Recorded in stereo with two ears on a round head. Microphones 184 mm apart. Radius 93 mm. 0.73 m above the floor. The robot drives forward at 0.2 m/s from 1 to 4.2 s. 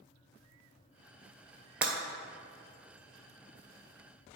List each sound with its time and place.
1.8 s breaking glass: 5° right (ahead or behind), 1.1 m